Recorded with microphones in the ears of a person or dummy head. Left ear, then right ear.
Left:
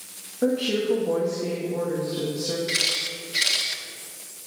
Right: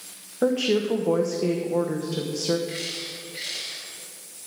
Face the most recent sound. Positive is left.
turn(degrees=45)  # may be behind; listen again after turning